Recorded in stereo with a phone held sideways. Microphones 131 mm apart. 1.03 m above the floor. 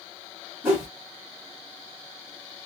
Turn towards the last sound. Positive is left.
turn(degrees=-15)  # may be behind; listen again after turning